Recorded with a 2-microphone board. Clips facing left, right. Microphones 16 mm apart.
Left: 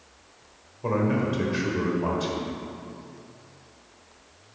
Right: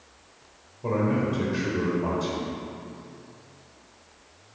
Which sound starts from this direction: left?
A man speaking, at 0.8 s.